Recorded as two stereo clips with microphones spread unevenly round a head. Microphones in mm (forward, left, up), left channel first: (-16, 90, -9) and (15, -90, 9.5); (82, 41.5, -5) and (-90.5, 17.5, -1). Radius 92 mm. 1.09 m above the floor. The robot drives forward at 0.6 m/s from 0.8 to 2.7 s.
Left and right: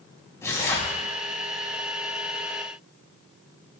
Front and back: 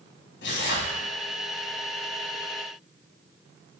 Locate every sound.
0.4 s tearing paper: 25° left, 6 m